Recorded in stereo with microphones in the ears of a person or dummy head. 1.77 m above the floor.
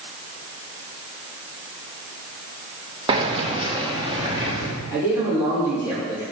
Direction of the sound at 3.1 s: 25° right (ahead or behind).